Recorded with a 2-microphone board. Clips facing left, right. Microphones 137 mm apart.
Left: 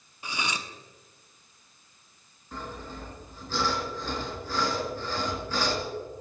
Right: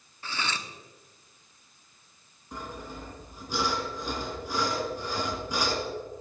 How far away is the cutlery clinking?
About 1.0 m.